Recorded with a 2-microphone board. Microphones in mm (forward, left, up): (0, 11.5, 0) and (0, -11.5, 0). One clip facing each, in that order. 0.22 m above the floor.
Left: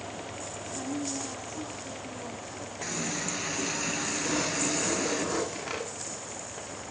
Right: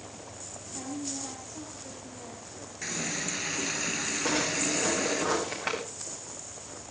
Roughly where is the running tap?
Centre.